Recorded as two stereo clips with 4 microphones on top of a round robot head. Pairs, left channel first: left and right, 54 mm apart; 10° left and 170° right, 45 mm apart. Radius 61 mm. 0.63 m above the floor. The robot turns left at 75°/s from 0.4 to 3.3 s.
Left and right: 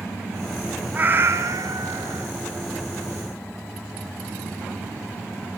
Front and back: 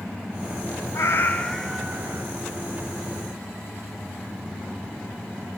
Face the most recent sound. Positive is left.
turn(degrees=155)